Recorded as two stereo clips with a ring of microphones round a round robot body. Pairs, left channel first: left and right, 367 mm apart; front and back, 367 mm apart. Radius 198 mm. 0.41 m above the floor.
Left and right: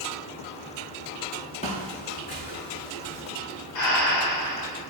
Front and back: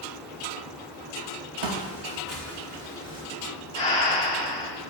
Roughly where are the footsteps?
Behind.